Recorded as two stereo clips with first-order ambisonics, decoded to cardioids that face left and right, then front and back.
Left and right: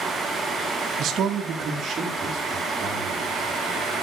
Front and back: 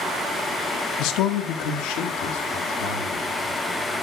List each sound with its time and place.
1.0 s a man speaking: 35° right, 1.1 m; by 3.2 s 20° right, 3 m